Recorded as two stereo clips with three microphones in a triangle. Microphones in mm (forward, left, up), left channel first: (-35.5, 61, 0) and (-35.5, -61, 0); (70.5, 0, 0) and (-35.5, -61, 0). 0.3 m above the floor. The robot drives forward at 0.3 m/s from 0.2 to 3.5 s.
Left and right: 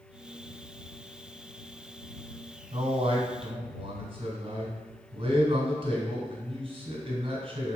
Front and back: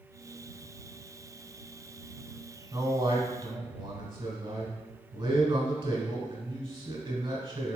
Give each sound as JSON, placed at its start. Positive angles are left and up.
{"t": 2.7, "sound": "a man speaking", "azimuth_deg": -115, "distance_m": 2.5}